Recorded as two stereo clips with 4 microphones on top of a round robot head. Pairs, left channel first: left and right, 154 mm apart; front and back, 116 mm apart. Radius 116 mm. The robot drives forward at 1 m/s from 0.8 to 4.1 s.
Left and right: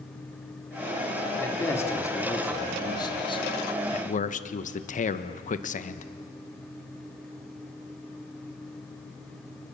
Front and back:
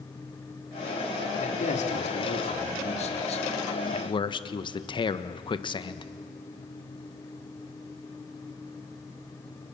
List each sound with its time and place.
1.4 s a man speaking: 15° left, 3.5 m; by 6.1 s 50° left, 1.2 m